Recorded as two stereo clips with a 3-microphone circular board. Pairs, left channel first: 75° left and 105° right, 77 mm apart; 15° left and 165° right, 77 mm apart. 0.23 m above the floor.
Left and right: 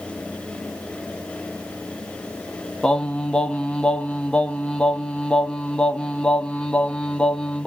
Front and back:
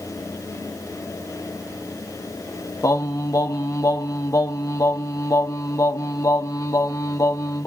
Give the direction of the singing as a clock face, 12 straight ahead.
12 o'clock.